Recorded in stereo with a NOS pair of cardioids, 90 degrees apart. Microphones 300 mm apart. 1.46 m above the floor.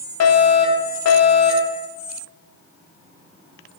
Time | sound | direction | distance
0.2 | a fire alarm | 65° left | 4 m